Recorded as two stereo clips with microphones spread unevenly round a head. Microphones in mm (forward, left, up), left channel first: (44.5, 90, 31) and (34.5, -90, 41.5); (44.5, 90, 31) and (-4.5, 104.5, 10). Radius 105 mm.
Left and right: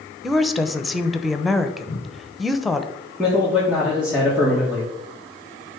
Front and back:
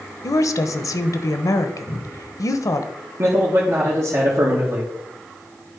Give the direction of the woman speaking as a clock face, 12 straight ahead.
12 o'clock.